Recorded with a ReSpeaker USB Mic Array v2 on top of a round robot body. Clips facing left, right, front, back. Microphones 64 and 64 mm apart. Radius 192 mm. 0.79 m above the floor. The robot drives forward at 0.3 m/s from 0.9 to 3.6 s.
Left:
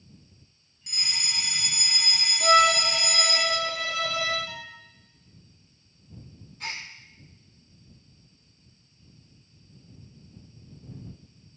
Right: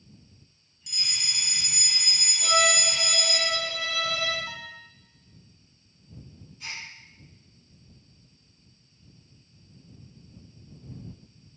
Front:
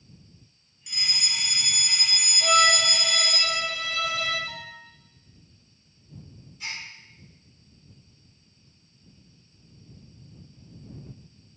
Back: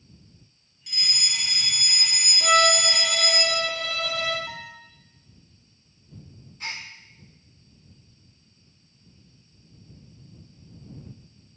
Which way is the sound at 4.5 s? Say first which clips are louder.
Right 1 dB, back 1 dB; 150° right.